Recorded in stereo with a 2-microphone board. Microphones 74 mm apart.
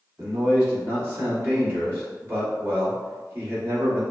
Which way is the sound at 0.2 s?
30° right (ahead or behind).